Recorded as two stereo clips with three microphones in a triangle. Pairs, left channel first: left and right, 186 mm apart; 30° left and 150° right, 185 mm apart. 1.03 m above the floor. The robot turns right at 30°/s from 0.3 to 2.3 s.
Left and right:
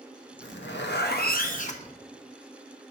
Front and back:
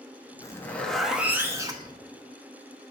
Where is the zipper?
100° left, 0.9 m; by 2.0 s 150° left, 0.9 m.